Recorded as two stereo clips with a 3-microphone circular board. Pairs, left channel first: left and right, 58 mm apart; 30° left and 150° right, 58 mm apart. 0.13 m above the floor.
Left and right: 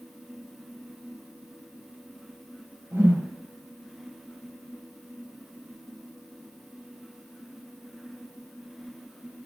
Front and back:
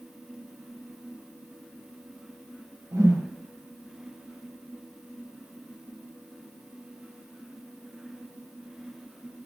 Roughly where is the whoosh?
Behind right.